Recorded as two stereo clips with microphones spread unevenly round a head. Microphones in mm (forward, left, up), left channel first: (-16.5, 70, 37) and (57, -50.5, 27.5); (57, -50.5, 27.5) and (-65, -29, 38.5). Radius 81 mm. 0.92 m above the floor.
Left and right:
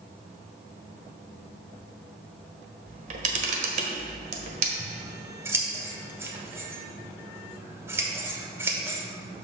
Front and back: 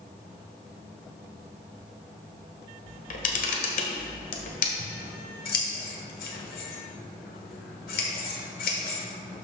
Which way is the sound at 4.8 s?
15° left.